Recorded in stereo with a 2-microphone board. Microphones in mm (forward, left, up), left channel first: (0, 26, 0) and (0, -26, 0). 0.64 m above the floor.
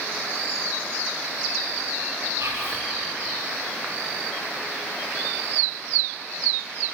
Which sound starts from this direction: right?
Whispering, at 2.4 s.